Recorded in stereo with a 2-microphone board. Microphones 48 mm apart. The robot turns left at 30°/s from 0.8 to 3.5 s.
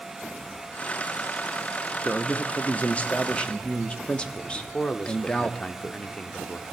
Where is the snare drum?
I don't hear a snare drum.